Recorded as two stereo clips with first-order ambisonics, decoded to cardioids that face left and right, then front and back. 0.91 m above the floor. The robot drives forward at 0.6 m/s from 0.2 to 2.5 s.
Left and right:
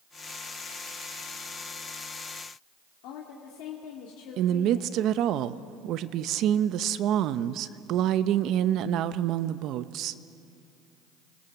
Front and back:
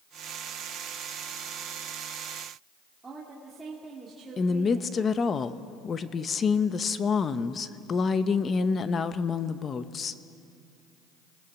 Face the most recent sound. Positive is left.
turn(degrees=-60)